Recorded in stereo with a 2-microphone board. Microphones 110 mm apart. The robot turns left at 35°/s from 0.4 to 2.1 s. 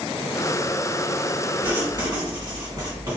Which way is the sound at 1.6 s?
35° right (ahead or behind).